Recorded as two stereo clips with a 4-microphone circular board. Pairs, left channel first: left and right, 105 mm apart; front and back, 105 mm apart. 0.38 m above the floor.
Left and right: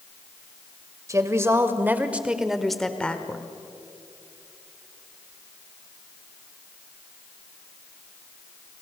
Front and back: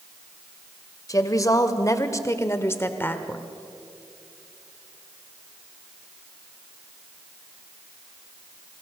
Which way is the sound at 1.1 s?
40° right.